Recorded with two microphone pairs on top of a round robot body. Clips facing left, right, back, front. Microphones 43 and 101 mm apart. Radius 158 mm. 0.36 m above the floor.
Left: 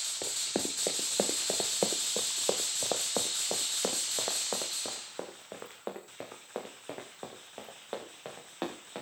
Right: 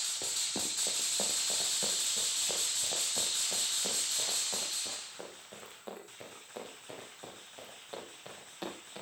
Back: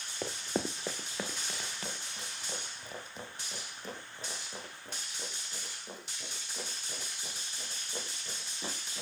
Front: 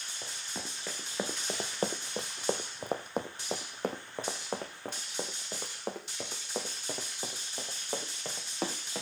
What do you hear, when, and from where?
0.2 s running footsteps: 160° left, 0.5 m; by 9.0 s 35° left, 4.5 m